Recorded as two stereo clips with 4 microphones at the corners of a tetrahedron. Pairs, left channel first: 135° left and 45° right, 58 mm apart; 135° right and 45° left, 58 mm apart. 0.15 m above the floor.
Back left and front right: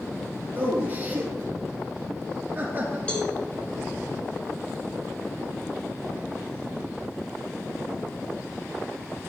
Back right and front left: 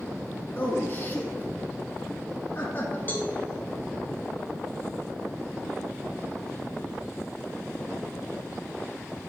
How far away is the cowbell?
About 1.1 m.